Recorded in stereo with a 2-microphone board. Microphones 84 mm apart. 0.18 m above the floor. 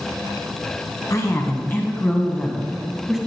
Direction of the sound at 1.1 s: 40° left (ahead or behind).